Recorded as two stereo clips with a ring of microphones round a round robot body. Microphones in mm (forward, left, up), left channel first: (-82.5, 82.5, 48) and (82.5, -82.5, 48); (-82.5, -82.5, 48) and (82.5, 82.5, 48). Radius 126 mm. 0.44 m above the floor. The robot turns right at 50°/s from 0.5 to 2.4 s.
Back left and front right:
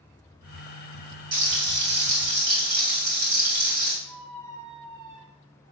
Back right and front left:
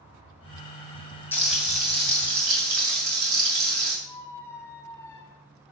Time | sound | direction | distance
1.3 | frying | 55° right | 3 m
4.0 | a squeak | 55° right | 1.0 m